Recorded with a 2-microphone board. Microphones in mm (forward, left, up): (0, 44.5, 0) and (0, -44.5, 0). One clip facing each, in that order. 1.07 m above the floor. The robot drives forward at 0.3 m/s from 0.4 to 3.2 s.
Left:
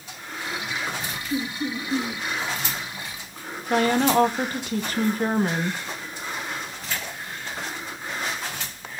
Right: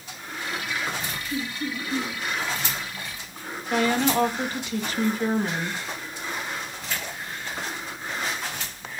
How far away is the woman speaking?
About 1.0 m.